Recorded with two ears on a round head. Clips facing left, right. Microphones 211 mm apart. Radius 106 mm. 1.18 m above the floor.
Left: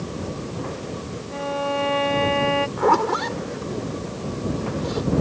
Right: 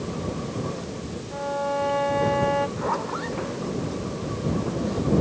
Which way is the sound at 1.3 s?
40° left (ahead or behind).